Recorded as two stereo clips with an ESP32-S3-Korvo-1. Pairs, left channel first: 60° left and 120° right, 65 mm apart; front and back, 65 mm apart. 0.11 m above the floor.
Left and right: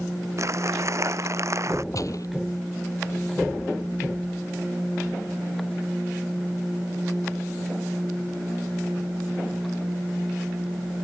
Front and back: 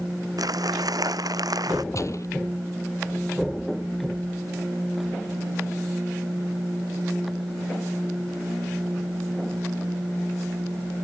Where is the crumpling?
165° right.